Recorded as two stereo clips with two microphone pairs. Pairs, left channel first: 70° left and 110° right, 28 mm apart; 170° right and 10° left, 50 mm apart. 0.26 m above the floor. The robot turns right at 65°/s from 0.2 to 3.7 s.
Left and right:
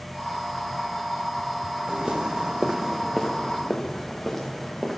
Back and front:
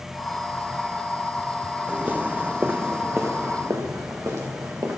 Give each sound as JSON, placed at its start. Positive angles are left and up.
{"t": 1.9, "sound": "footsteps", "azimuth_deg": -50, "distance_m": 1.0}